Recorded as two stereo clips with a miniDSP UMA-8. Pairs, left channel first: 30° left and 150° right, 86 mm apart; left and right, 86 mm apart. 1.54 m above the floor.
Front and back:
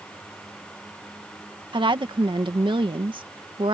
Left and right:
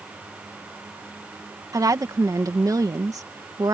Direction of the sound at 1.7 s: 135° right.